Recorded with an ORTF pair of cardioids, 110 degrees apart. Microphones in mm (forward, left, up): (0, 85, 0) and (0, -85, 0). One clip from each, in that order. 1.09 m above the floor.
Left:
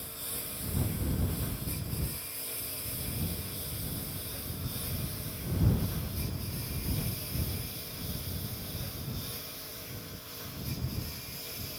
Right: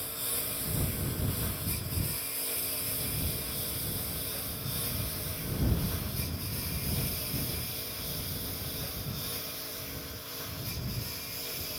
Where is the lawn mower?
30° right; by 11.8 s 25° right.